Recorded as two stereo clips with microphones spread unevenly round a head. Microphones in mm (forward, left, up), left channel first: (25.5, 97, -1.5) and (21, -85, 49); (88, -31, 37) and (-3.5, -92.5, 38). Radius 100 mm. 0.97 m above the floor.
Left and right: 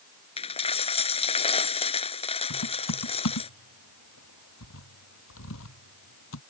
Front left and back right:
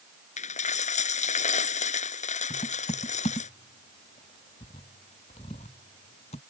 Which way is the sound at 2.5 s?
85° left.